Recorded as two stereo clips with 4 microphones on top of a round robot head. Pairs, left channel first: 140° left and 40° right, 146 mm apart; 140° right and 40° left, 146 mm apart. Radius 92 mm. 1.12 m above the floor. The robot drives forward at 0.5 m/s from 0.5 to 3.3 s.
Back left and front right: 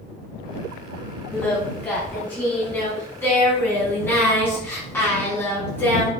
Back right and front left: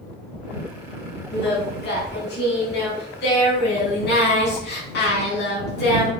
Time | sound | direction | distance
1.3 | singing | 140° right | 6 m